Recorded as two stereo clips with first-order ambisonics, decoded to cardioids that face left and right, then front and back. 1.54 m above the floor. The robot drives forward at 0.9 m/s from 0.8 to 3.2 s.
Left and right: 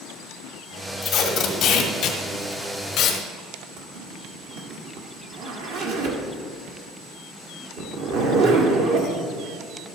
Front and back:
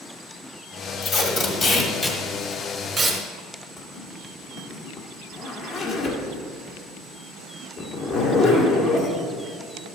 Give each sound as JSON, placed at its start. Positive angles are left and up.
{"t": 1.0, "sound": "tape being pulled", "azimuth_deg": 40, "distance_m": 2.0}
{"t": 3.8, "sound": "a zipper", "azimuth_deg": -80, "distance_m": 1.8}